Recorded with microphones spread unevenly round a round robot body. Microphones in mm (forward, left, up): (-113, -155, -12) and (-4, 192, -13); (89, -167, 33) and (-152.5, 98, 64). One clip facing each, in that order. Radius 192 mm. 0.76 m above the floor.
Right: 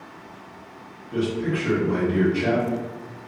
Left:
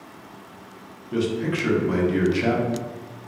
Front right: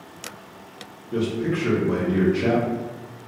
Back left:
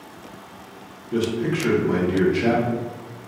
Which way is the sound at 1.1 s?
55° left.